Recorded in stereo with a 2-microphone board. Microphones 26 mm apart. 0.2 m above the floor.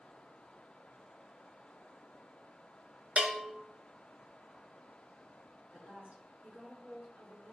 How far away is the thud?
No thud in this recording.